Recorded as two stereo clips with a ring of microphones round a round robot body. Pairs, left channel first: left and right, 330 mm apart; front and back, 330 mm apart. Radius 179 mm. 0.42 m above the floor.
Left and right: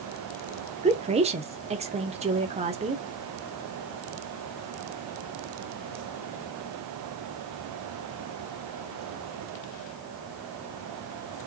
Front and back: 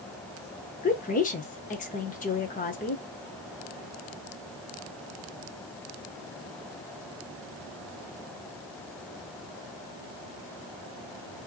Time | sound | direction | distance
0.8 | a woman speaking | 40° right | 0.8 m